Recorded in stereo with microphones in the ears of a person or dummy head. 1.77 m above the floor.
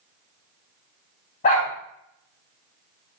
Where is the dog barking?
40° left (ahead or behind), 4.5 m.